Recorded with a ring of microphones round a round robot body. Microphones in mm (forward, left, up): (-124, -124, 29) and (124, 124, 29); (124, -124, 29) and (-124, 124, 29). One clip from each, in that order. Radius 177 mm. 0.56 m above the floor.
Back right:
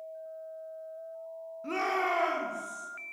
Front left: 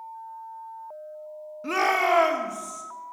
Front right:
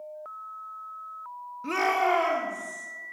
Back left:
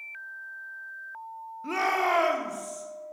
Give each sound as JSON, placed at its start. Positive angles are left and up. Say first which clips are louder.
{"t": 1.6, "sound": "a shout", "louder": "front left 8 dB, front right 1 dB", "azimuth_deg": 10, "distance_m": 1.0}